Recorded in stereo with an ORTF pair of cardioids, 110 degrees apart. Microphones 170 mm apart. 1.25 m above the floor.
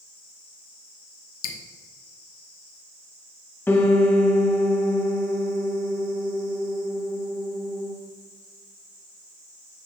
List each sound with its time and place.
1.4 s dripping: 65° left, 0.9 m
3.7 s a piano: 15° left, 1.0 m